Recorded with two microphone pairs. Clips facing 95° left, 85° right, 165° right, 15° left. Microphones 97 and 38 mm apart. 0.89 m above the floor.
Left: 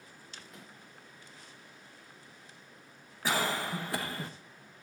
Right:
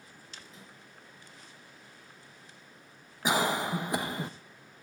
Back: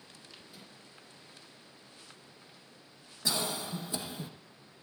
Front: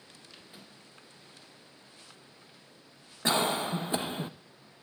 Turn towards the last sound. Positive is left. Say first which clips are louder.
# right 4 dB, front 7 dB
turn(degrees=-15)